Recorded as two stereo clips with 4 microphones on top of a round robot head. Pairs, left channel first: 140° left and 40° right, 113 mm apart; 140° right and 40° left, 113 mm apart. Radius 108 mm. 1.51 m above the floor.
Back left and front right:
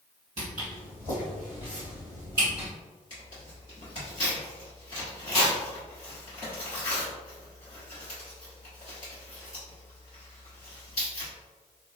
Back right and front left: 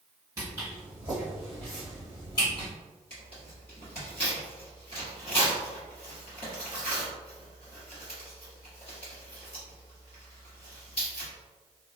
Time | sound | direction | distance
0.4 | footsteps | 15° right | 1.9 m
3.1 | tearing paper | 175° right | 1.2 m